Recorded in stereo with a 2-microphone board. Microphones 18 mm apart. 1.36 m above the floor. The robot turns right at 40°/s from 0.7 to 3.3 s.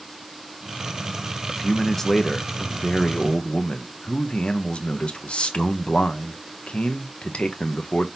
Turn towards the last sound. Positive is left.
turn(degrees=75)